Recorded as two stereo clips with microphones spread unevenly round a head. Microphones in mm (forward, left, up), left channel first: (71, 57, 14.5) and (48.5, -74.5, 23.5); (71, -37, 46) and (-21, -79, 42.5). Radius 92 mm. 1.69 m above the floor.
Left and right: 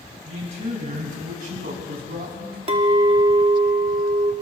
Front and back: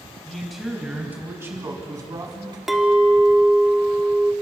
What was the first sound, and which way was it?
A man speaking, 60° right.